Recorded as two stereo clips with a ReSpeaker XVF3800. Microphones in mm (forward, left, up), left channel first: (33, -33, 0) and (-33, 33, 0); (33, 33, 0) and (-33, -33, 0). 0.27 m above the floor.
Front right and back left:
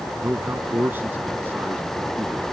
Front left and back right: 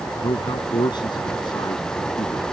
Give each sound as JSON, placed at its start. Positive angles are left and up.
{"t": 0.2, "sound": "a man speaking", "azimuth_deg": 70}